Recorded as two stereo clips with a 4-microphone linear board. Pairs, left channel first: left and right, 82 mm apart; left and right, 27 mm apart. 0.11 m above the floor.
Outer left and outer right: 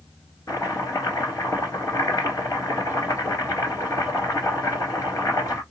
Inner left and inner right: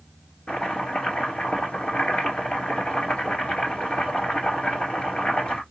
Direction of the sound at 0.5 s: 40° left (ahead or behind).